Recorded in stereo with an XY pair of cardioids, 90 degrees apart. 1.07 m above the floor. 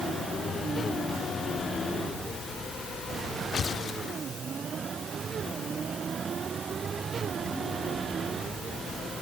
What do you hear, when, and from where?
Only background noise.